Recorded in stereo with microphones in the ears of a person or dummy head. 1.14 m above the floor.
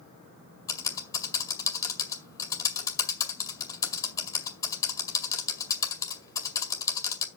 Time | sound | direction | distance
0.7 | typing on a keyboard | 20° left (ahead or behind) | 2 m